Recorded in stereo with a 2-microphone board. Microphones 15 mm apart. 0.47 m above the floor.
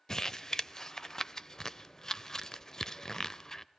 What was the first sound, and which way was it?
Crumpling, 30° left (ahead or behind).